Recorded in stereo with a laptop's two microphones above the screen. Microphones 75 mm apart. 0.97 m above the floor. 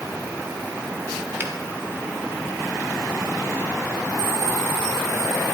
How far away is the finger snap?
About 1.9 m.